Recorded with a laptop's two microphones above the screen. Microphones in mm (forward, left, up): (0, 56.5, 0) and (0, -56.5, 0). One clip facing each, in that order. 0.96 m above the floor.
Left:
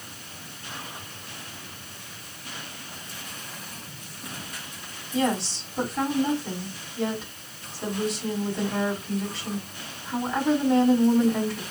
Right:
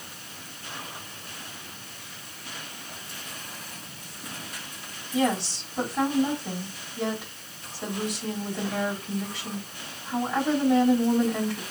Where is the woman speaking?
15° right (ahead or behind), 5.5 m.